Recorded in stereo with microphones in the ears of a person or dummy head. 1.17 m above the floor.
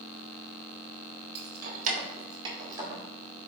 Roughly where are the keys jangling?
Right.